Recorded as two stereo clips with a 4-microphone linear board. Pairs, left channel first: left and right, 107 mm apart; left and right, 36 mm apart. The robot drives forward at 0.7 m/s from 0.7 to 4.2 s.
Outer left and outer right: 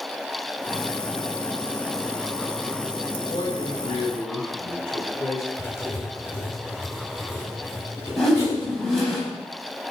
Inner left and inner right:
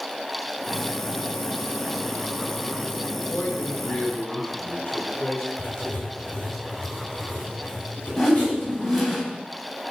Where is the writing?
25° left (ahead or behind), 6 m.